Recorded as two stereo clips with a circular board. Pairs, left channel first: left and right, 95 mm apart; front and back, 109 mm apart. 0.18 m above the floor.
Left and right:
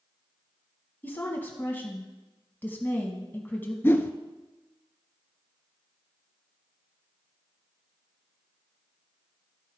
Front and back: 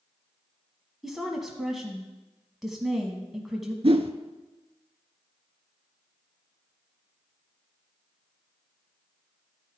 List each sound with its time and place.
1.0 s a woman speaking: 95° left, 1.1 m
3.8 s a whoosh: 150° left, 0.6 m